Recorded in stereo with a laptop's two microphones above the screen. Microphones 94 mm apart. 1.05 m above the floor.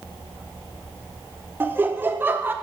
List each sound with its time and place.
1.6 s laughter: 20° right (ahead or behind), 0.8 m